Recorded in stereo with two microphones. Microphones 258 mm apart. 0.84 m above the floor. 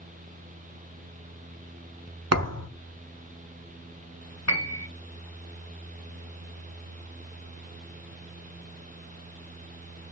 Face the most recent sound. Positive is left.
turn(degrees=85)